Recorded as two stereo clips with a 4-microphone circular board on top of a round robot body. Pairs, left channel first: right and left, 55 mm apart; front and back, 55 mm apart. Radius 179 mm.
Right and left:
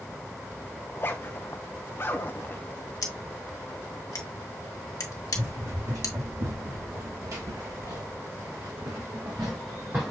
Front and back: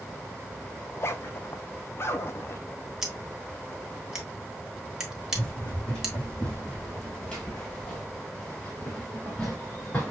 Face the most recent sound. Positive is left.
turn(degrees=-50)